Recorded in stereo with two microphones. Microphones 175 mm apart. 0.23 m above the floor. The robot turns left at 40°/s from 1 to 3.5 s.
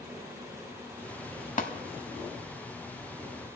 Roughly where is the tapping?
Left.